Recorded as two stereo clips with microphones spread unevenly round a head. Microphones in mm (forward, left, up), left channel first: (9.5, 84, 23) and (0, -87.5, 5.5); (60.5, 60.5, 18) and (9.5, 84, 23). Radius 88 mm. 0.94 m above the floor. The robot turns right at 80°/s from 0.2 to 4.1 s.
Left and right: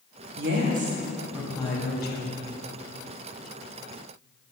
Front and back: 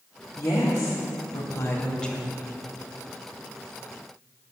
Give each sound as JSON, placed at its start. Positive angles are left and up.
{"t": 0.4, "sound": "a woman speaking", "azimuth_deg": -85, "distance_m": 1.3}